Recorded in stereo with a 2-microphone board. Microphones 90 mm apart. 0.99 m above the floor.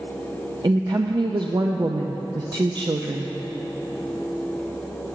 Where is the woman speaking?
50° right (ahead or behind), 0.6 m.